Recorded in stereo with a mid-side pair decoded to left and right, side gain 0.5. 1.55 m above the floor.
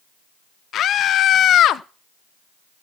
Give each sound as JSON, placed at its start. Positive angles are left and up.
{"t": 0.7, "sound": "a scream", "azimuth_deg": 60, "distance_m": 1.1}